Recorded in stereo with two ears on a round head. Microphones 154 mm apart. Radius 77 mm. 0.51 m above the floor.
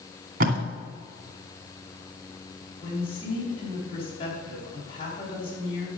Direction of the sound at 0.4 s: 55° right (ahead or behind).